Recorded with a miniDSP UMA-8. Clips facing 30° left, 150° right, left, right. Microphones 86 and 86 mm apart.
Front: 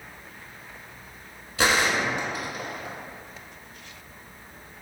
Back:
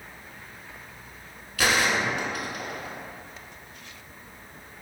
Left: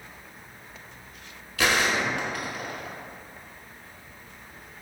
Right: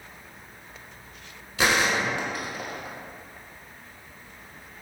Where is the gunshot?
30° right, 0.5 m.